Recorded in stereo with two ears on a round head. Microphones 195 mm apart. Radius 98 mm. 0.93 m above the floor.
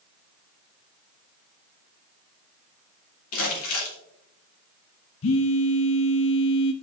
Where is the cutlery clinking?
No cutlery clinking in this recording.